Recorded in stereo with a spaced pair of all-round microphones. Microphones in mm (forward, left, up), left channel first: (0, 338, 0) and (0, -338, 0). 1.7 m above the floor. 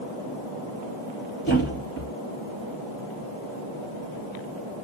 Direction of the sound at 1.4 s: 15° left (ahead or behind).